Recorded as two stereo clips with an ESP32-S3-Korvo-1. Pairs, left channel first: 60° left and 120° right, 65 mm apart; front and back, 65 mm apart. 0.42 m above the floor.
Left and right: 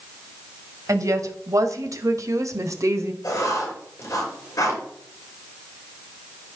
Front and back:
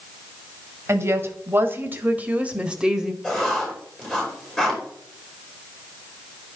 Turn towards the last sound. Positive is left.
turn(degrees=95)